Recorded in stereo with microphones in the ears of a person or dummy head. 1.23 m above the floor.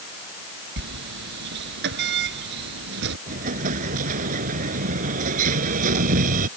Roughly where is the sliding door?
Right.